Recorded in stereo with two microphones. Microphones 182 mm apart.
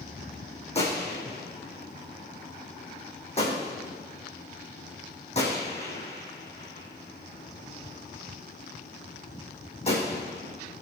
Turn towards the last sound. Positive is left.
turn(degrees=35)  # may be behind; listen again after turning